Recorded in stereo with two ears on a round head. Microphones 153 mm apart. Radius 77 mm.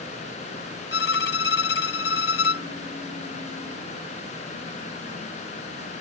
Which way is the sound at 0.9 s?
75° left (ahead or behind).